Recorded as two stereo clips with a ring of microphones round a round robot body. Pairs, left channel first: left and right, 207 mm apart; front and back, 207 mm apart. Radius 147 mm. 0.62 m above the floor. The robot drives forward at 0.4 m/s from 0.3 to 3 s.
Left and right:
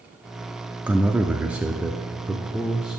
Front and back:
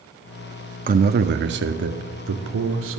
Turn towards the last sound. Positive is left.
turn(degrees=-175)